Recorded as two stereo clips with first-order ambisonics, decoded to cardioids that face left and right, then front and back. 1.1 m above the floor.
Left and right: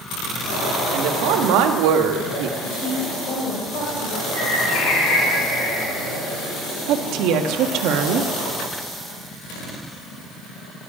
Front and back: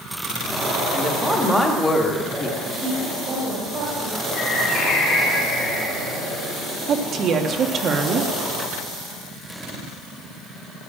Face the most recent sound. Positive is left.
turn(degrees=-120)